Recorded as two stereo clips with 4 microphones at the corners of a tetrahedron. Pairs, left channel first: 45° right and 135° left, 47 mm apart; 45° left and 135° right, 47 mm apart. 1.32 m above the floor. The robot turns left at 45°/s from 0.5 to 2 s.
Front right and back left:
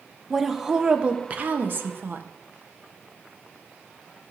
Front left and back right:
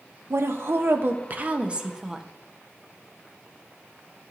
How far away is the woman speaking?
About 0.7 m.